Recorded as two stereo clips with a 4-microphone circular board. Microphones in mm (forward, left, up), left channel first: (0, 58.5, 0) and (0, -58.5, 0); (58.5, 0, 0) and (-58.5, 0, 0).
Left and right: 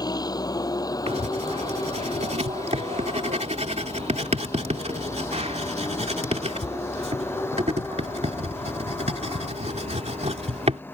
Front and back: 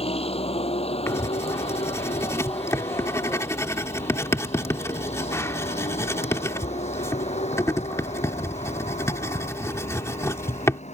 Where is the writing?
65° right.